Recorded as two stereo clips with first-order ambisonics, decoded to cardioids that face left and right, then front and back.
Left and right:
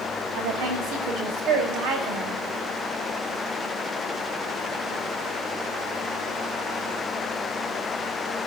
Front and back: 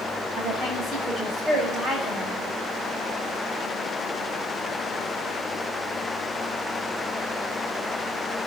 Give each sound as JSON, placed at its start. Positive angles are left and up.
{"t": 0.3, "sound": "a woman speaking", "azimuth_deg": -110, "distance_m": 6.0}